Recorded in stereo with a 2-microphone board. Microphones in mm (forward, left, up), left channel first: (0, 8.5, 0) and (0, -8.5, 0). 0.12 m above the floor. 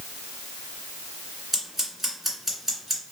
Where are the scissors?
15° right (ahead or behind), 1.8 m.